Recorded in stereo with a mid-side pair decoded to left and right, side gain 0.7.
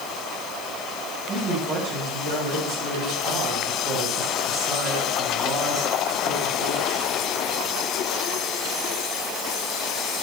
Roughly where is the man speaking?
Ahead right.